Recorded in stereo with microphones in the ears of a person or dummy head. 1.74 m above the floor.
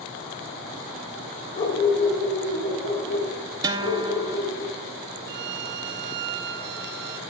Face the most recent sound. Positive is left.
turn(degrees=-60)  # may be behind; listen again after turning